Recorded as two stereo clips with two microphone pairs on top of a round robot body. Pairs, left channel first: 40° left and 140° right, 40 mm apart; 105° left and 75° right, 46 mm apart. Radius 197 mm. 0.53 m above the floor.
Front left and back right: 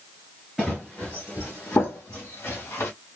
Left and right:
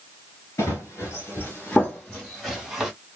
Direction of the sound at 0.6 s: 135° left.